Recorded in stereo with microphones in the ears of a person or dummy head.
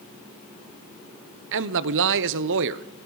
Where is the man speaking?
70° right (ahead or behind), 0.9 m.